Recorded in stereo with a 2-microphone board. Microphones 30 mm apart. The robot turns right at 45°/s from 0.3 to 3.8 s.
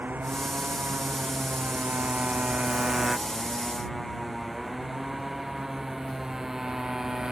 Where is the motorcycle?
65° right (ahead or behind); by 7.3 s 15° right (ahead or behind).